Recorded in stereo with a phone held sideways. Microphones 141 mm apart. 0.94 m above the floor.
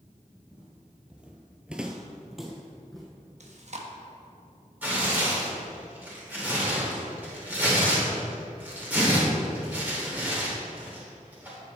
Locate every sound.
0.5 s footsteps: 5° right (ahead or behind), 2 m; by 3.0 s centre (ahead or behind), 2 m
3.4 s chewing: 55° right (ahead or behind), 1.1 m
4.8 s tearing paper: 10° right (ahead or behind), 3 m